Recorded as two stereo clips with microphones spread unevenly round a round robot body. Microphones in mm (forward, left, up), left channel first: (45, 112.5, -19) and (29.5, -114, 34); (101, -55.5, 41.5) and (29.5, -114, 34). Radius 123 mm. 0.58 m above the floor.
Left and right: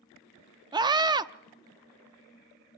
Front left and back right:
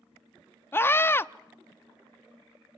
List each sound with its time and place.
0.7 s a scream: 15° right, 0.9 m